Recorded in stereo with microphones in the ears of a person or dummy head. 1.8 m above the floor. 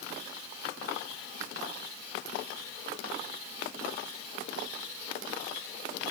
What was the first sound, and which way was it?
Only background noise.